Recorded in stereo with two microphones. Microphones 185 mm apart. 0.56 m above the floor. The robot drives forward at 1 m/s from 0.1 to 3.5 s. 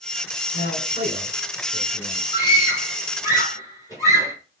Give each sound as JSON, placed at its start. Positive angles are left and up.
{"t": 0.5, "sound": "a man speaking", "side_deg": 45, "distance_m": 4.0}
{"t": 2.3, "sound": "a scream", "side_deg": 20, "distance_m": 6.5}